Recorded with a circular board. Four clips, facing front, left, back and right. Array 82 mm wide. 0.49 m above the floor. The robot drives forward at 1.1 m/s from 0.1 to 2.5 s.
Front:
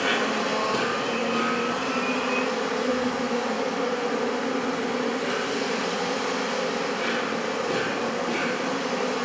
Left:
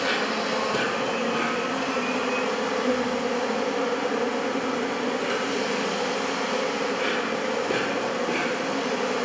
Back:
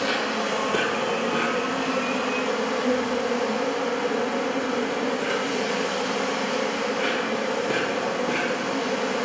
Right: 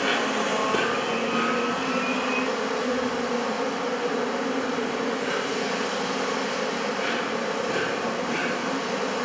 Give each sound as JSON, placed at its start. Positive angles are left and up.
{"t": 0.0, "sound": "an insect", "azimuth_deg": -40, "distance_m": 0.9}